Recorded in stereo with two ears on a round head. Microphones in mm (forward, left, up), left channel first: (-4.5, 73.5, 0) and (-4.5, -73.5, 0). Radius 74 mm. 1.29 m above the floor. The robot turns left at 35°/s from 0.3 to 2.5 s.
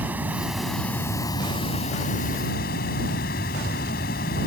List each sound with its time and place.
0.0 s running water: 170° right; by 4.5 s 115° left